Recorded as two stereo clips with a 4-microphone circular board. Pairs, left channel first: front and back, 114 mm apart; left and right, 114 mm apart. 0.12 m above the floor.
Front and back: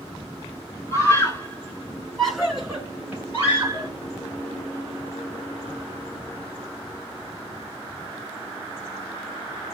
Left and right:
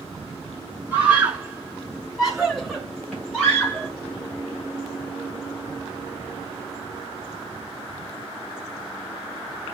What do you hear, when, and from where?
0.9 s a scream: 30° right, 1.7 m; by 3.9 s 155° left, 1.7 m